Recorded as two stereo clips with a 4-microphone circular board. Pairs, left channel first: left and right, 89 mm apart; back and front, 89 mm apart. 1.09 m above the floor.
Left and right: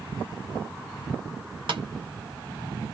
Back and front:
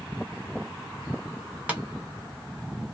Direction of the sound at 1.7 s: 70° right.